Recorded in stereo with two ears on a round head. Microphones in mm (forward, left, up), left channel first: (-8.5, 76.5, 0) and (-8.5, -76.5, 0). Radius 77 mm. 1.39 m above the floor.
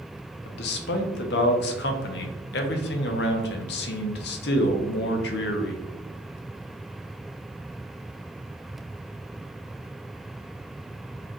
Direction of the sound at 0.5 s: 65° left (ahead or behind).